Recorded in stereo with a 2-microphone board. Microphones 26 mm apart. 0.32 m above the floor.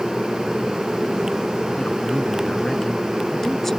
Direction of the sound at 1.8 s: 45° left (ahead or behind).